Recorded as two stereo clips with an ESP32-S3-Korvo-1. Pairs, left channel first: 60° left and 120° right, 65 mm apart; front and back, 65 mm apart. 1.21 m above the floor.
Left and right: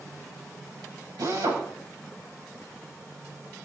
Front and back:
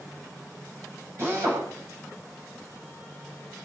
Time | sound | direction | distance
1.2 | a drill | 140° right | 7.5 m